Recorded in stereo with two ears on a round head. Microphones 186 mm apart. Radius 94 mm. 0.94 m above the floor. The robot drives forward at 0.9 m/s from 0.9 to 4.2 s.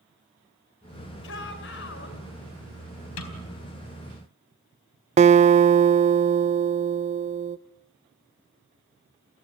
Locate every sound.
1.2 s a shout: 70° left (ahead or behind), 5 m; by 2.2 s 60° left (ahead or behind), 5 m
3.2 s a snare drum: 80° left, 4 m
5.2 s a guitar: 35° right (ahead or behind), 0.6 m